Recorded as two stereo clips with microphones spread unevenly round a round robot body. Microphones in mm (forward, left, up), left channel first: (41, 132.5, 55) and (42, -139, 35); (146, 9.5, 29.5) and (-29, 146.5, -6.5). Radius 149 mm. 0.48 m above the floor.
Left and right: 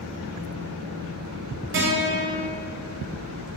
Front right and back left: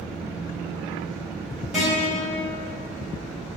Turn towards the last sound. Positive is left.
turn(degrees=-135)